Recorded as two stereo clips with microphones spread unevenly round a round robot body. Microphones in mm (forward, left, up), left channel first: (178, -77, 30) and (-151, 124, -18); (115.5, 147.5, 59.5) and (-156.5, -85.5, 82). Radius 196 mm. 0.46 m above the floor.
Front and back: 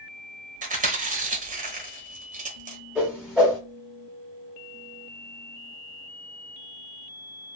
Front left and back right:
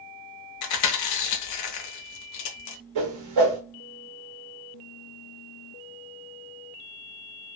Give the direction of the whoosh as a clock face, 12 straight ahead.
4 o'clock.